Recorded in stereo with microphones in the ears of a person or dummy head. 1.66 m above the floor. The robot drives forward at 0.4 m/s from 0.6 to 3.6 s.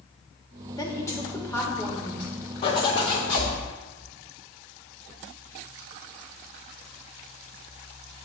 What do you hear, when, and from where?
0.8 s a woman speaking: 20° left (ahead or behind), 1.4 m; by 2.3 s 15° left (ahead or behind), 2.0 m
2.6 s a zipper: 30° left (ahead or behind), 0.9 m; by 3.5 s 25° left (ahead or behind), 1.1 m